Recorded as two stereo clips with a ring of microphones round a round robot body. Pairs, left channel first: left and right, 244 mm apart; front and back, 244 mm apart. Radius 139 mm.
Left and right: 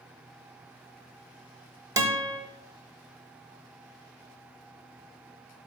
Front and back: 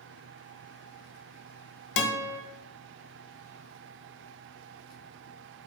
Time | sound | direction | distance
2.0 | a guitar | 10° right | 0.8 m